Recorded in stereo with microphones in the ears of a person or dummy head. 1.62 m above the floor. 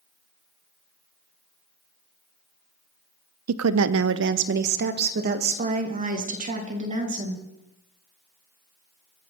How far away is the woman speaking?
About 0.6 m.